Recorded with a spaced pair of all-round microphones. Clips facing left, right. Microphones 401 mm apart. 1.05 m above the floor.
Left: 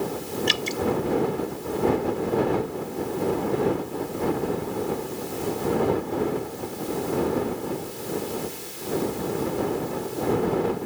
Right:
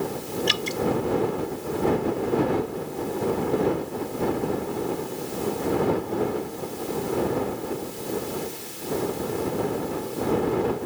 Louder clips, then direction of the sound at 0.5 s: Even; 85° right.